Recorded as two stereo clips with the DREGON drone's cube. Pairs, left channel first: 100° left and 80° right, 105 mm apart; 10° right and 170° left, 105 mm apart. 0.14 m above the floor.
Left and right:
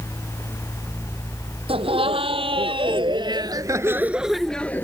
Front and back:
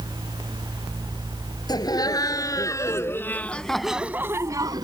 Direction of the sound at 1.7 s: 60° right.